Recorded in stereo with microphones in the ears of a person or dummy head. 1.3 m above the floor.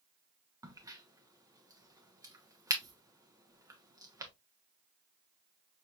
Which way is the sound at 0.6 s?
15° right (ahead or behind).